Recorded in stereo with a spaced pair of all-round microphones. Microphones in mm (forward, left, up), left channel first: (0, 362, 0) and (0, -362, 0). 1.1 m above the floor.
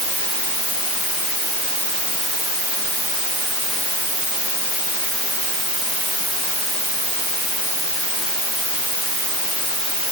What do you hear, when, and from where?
Only background noise.